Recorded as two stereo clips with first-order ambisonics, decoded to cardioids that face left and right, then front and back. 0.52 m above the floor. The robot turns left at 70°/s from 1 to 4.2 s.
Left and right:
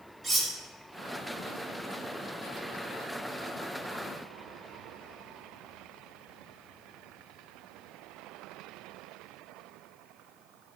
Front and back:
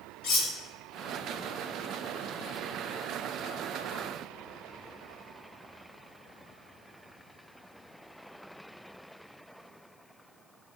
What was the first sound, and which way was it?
Cutlery clinking, 5° right.